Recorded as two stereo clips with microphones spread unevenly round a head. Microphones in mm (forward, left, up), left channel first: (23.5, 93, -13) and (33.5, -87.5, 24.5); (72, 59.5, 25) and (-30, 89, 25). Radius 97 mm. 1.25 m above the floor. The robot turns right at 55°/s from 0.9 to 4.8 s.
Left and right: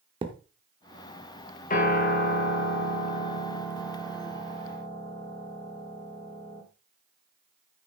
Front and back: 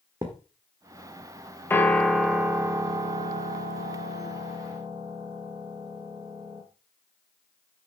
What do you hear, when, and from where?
0.2 s a thud: 130° right, 1.1 m
1.7 s a piano: 55° left, 2.0 m; by 6.6 s 135° right, 2.0 m